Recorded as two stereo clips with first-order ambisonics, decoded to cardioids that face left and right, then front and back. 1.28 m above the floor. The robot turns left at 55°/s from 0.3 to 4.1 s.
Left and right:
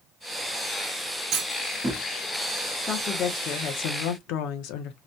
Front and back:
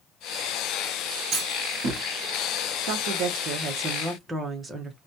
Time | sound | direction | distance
1.3 | a clunk | 130° right | 1.7 m
2.9 | a woman speaking | 170° left | 0.8 m